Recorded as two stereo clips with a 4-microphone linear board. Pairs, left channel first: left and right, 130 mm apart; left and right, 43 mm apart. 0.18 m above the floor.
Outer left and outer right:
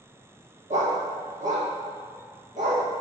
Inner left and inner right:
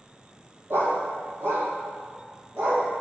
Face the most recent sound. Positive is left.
turn(degrees=-70)  # may be behind; listen again after turning